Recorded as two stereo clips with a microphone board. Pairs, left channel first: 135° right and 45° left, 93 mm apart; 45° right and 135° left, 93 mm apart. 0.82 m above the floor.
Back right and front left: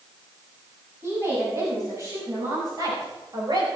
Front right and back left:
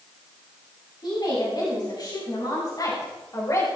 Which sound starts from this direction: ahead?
A woman speaking, at 1.0 s.